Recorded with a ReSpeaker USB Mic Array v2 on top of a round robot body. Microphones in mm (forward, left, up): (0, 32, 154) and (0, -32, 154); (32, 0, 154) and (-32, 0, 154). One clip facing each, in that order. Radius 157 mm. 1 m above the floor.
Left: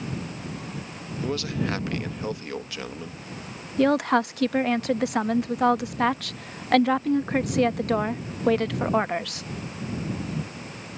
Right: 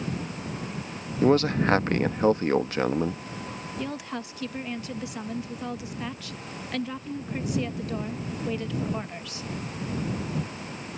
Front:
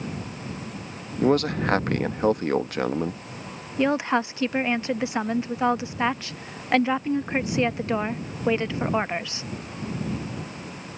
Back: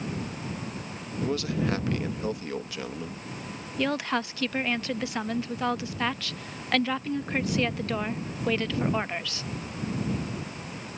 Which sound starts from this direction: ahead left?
A woman speaking, at 3.8 s.